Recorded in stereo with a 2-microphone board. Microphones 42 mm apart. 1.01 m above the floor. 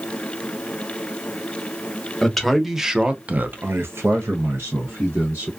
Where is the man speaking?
5° left (ahead or behind), 0.8 m; by 5.5 s 60° right (ahead or behind), 1.1 m.